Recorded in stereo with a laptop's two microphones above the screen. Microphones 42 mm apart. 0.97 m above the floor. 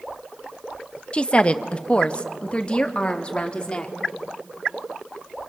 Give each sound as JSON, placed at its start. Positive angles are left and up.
{"t": 1.1, "sound": "a woman speaking", "side_deg": 30, "distance_m": 0.8}